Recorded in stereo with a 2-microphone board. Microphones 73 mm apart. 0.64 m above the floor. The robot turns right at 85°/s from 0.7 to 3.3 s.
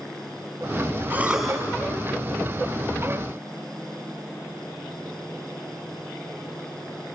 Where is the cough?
30° right, 4.5 m; by 1.6 s 15° left, 4.5 m.